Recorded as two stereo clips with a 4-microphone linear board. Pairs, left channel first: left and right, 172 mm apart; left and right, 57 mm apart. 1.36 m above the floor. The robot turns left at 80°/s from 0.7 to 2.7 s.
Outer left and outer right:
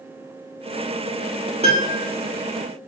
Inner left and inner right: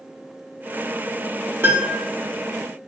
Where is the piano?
145° right, 1.2 m; by 2.0 s 175° right, 1.2 m.